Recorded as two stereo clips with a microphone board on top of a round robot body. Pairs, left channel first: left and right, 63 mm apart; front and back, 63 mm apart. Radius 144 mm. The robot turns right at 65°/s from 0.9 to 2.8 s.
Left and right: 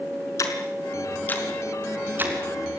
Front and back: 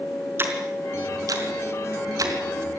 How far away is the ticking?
About 4.5 m.